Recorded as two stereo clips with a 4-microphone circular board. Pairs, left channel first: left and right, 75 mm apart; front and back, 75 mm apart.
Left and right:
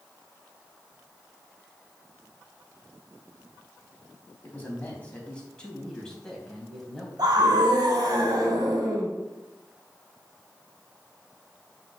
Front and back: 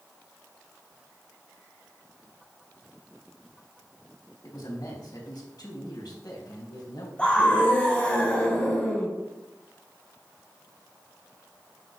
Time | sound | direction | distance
4.4 | a man speaking | 25° left | 4 m
7.2 | a scream | 75° right | 3.5 m